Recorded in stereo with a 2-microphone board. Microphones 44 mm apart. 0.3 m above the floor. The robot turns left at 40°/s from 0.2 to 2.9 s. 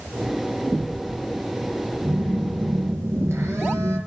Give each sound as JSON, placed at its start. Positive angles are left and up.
{"t": 2.0, "sound": "a phone buzzing", "azimuth_deg": -45, "distance_m": 4.0}